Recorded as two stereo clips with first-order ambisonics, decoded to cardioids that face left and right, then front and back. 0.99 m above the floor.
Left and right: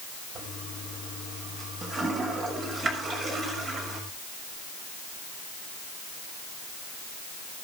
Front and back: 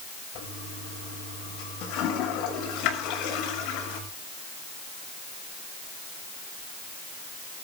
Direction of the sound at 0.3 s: 30° right.